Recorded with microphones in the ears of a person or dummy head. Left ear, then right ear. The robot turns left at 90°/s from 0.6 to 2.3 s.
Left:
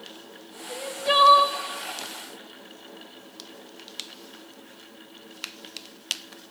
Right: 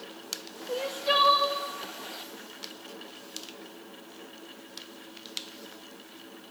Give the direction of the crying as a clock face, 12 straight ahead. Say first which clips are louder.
Left 3 dB; 5 o'clock.